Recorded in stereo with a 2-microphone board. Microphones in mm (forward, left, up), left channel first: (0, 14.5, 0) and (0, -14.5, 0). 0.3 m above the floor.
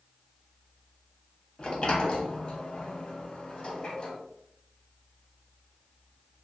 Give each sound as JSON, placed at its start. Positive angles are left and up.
{"t": 1.6, "sound": "a sliding door", "side_deg": 40, "distance_m": 0.5}